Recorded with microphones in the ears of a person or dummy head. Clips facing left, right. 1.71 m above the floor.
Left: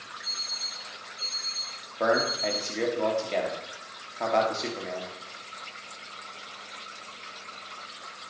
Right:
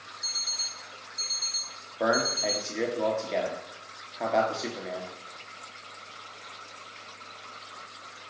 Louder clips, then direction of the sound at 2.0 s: Left 1 dB; 5° right (ahead or behind).